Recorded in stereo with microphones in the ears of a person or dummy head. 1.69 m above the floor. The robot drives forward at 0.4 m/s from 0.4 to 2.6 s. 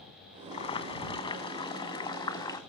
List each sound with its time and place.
0.5 s boiling: 35° left (ahead or behind), 1.7 m; by 2.6 s 25° left (ahead or behind), 2.5 m